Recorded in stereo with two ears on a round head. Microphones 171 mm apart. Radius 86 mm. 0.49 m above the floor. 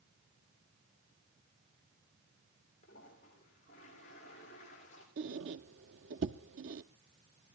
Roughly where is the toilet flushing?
Left.